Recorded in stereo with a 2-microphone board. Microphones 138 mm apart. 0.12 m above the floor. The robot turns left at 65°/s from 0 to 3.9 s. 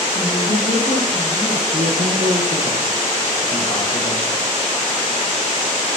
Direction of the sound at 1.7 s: 65° right.